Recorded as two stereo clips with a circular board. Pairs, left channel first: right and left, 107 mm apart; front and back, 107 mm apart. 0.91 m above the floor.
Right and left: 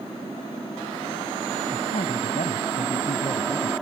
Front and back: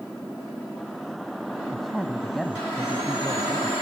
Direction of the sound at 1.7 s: 90° right.